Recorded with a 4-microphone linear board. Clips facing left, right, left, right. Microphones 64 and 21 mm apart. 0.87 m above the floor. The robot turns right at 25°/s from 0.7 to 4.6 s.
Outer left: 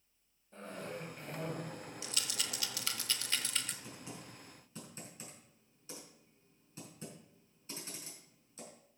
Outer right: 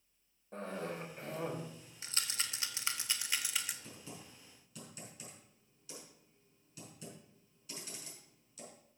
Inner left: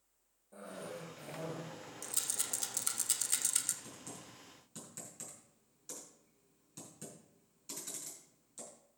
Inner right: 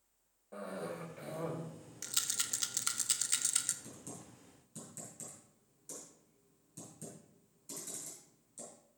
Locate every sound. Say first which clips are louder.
0.5 s a cough: outer right 3 dB, inner right 4 dB; 55° right (ahead or behind), 4 m; by 1.6 s 30° right (ahead or behind), 4 m
2.0 s a rattle: outer right 2 dB, inner right 3 dB; 35° right (ahead or behind), 0.9 m; by 3.7 s 5° right (ahead or behind), 0.9 m
3.8 s typing on a keyboard: outer left 2 dB, even; 15° left (ahead or behind), 4.5 m; by 8.7 s 30° left (ahead or behind), 4.5 m